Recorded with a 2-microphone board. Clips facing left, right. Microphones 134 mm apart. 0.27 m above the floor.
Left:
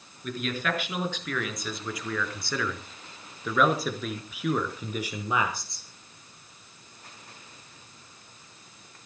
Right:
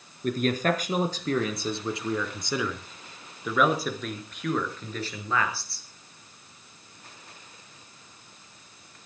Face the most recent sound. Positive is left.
turn(degrees=20)  # may be behind; listen again after turning